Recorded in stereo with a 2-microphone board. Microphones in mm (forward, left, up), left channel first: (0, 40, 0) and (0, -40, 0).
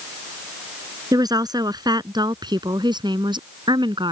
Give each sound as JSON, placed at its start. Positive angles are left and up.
{"t": 1.1, "sound": "a woman speaking", "side_deg": -55}